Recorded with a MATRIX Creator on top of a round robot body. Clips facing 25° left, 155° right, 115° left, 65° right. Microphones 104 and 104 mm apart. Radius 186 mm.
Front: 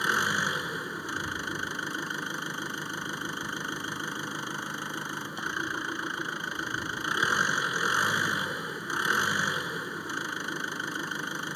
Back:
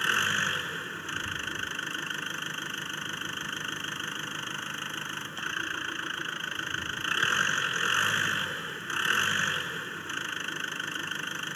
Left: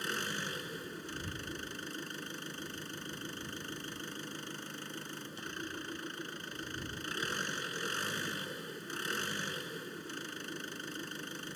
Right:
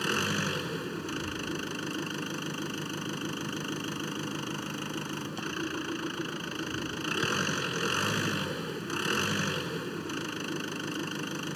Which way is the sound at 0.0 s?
50° right.